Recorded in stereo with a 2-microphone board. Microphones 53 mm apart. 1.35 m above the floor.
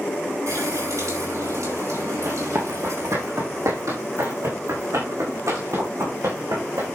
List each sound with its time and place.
0.5 s a running tap: 85° right, 5 m
2.2 s running footsteps: 70° right (ahead or behind), 3.5 m; by 6.8 s 75° right (ahead or behind), 6.5 m